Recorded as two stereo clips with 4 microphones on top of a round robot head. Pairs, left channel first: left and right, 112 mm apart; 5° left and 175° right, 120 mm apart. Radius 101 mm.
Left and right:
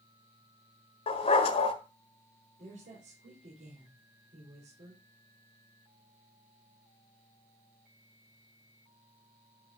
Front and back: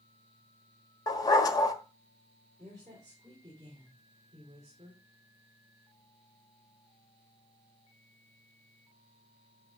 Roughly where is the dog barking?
Ahead left.